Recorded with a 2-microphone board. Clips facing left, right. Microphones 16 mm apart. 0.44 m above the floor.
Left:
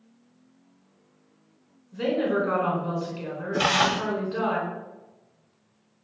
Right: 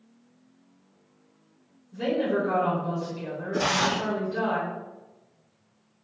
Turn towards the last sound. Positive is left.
turn(degrees=60)  # may be behind; listen again after turning